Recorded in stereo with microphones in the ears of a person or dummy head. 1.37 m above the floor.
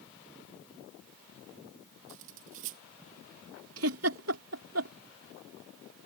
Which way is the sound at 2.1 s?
40° right (ahead or behind).